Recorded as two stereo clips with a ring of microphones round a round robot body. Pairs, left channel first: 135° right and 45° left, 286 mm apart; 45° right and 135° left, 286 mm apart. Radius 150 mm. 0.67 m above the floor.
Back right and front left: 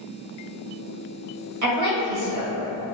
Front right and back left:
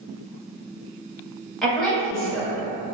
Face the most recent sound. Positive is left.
turn(degrees=45)